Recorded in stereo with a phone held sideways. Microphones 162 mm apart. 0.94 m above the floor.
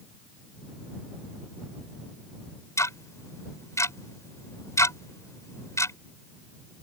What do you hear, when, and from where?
2.8 s ticking: 20° left (ahead or behind)